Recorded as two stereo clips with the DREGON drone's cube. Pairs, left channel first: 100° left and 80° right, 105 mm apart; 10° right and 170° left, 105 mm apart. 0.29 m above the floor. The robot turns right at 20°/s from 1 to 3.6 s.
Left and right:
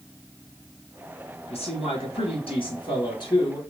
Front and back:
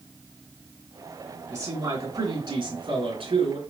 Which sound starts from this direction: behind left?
A man speaking, at 1.5 s.